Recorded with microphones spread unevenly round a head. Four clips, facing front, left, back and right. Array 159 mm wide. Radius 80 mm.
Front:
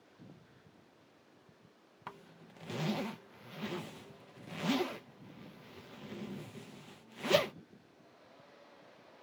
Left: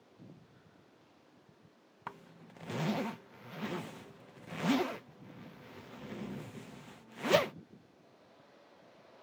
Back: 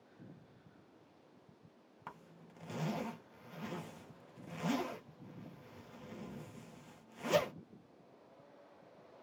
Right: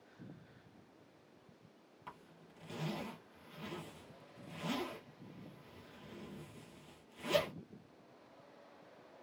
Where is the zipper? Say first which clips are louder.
Left 7 dB, front 3 dB; 60° left, 0.7 m.